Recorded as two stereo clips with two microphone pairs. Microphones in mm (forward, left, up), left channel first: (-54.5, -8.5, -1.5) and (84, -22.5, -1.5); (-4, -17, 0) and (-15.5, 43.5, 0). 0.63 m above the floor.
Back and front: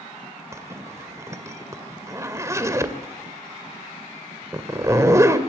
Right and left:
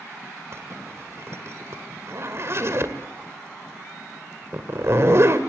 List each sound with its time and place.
0.5 s a zipper: 60° left, 2 m